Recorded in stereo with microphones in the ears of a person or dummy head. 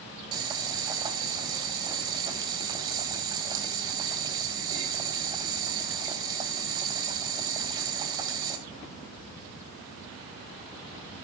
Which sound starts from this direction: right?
Boiling, at 0.3 s.